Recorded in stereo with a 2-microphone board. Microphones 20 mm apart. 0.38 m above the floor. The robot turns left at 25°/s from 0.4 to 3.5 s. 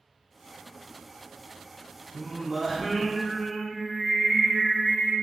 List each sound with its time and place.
2.1 s singing: 155° right, 0.9 m; by 5.1 s 170° left, 0.9 m